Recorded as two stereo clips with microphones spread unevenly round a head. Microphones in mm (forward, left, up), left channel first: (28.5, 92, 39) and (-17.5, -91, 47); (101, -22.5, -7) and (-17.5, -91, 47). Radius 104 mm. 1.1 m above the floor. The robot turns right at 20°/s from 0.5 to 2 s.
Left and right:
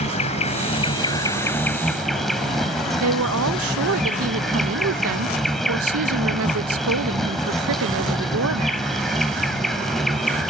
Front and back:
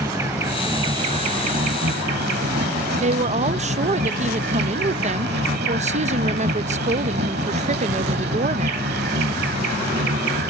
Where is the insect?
135° left; by 10.5 s 165° left.